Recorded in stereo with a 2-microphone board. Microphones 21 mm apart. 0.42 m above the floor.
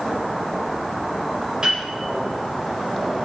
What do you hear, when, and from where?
1.6 s a piano: 40° right (ahead or behind), 1.3 m